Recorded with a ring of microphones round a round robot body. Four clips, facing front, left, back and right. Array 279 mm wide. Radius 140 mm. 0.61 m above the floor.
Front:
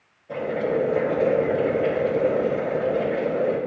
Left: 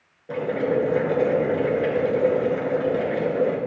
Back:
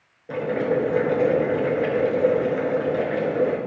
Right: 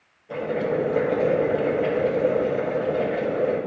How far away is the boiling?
About 3 m.